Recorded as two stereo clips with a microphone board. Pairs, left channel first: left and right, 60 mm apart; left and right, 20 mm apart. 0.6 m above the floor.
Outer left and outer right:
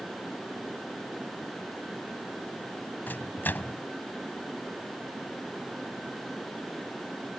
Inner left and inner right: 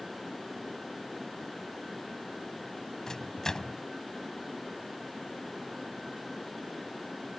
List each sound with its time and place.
3.1 s a microwave: 30° left (ahead or behind)